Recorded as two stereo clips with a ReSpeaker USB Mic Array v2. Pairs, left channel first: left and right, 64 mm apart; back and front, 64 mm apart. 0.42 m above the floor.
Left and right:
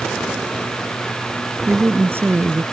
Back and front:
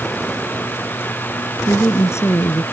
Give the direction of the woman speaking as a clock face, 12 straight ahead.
5 o'clock.